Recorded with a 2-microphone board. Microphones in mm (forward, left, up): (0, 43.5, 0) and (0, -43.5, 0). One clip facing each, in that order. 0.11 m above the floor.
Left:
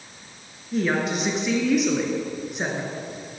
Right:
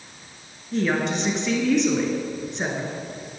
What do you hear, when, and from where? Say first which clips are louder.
0.7 s a woman speaking: even; 5° left (ahead or behind), 1.1 m